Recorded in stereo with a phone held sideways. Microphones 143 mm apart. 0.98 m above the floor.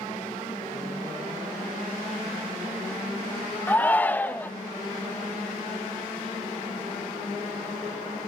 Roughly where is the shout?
Centre.